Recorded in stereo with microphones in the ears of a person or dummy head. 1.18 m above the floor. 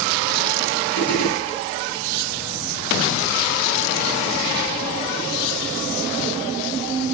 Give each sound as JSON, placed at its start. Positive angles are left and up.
{"t": 1.0, "sound": "a gunshot", "side_deg": 50, "distance_m": 6.0}